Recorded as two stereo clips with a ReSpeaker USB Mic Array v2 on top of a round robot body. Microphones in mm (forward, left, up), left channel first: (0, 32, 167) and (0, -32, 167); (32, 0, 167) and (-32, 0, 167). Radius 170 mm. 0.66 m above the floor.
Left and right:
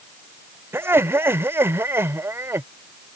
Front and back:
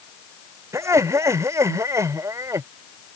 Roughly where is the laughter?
Behind right.